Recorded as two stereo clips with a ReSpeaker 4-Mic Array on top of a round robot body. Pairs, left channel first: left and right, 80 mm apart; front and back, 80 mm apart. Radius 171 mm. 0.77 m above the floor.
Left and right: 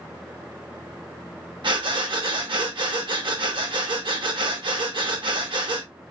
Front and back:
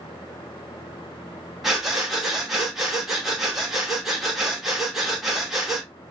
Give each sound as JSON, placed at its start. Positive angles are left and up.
{"t": 1.6, "sound": "breathing", "azimuth_deg": -95, "distance_m": 1.4}